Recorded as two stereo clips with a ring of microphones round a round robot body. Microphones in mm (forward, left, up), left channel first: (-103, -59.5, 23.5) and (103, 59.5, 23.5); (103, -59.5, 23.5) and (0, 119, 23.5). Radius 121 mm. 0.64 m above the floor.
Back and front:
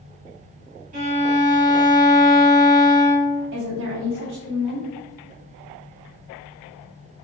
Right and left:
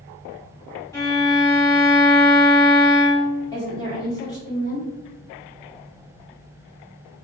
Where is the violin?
5° left, 1.4 m.